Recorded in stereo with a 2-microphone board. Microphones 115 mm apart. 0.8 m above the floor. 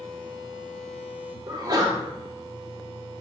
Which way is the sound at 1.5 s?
35° right (ahead or behind).